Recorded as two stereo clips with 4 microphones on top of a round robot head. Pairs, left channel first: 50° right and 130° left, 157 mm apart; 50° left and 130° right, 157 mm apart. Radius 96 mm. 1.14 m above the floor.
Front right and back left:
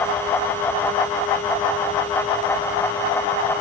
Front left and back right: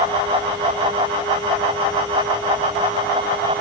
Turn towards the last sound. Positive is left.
No sound to turn to.